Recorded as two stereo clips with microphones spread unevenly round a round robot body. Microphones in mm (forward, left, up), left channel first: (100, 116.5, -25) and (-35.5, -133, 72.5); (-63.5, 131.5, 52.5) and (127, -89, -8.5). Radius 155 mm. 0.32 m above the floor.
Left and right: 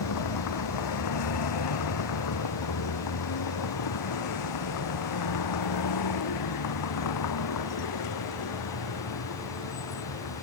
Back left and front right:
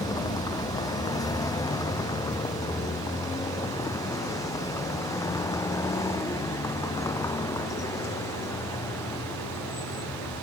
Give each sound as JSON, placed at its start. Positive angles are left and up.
{"t": 0.0, "sound": "a vehicle", "azimuth_deg": 55}